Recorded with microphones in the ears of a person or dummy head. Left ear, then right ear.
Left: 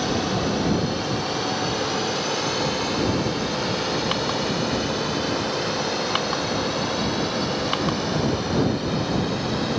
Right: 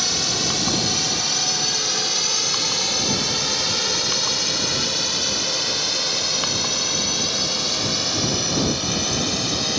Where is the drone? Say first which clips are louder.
Right 3 dB; 60° right (ahead or behind); by 9.8 s 45° right (ahead or behind).